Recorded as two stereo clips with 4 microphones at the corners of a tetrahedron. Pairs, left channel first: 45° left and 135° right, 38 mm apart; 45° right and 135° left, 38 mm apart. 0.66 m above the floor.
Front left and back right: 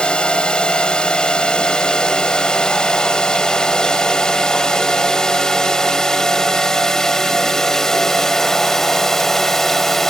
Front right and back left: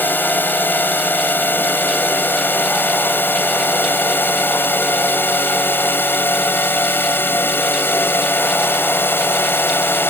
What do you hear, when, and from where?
0.0 s a drone: 20° right; by 10.1 s 35° right